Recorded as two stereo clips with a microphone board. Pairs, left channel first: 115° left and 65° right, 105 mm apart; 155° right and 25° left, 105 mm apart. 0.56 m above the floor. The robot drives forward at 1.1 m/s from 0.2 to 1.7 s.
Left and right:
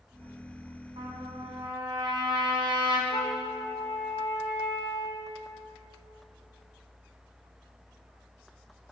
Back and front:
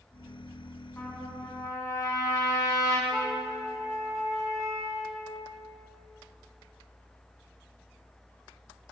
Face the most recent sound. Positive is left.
turn(degrees=115)